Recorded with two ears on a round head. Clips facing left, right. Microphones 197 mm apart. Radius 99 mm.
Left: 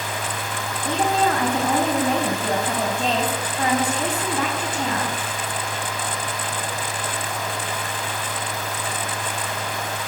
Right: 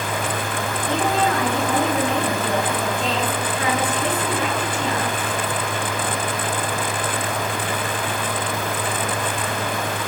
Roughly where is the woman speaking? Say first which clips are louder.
Left 1 dB; left.